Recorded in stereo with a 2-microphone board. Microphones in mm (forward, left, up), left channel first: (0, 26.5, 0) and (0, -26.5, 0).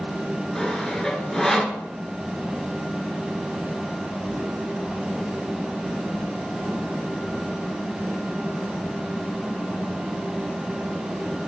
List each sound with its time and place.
0.6 s sawing: 10° left (ahead or behind), 0.7 m